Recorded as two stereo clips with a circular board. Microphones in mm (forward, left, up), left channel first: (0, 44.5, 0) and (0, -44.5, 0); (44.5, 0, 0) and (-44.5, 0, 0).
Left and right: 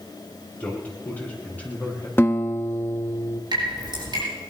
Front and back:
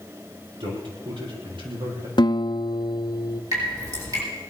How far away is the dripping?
About 6.5 m.